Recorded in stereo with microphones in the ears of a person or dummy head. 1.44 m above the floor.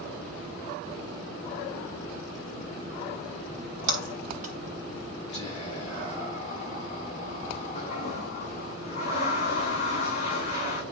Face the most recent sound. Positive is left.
turn(degrees=25)  # may be behind; listen again after turning